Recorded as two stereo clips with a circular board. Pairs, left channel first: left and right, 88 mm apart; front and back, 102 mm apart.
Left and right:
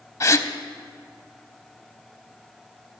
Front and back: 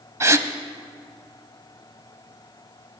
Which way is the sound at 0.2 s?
130° left.